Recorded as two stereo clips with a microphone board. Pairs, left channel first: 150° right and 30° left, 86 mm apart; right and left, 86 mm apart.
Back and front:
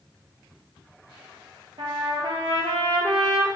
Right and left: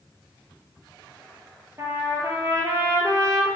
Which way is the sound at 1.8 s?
35° left.